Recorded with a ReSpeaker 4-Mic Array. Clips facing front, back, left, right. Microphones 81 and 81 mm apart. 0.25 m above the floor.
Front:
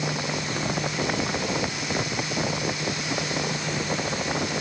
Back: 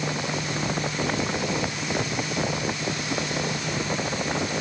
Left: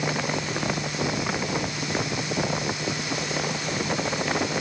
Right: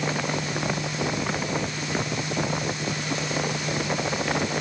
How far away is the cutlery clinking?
No cutlery clinking in this recording.